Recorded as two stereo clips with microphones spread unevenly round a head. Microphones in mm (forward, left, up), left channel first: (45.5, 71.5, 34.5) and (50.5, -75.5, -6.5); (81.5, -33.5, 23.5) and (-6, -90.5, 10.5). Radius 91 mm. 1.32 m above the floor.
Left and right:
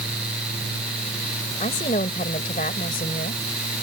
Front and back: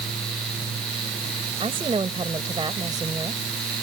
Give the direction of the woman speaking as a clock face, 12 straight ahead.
7 o'clock.